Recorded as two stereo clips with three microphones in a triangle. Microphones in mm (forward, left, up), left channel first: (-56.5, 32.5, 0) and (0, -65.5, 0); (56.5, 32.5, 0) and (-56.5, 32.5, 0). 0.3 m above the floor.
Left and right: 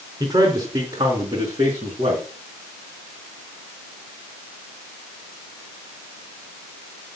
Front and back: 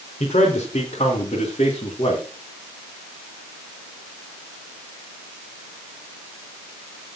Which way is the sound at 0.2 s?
15° right.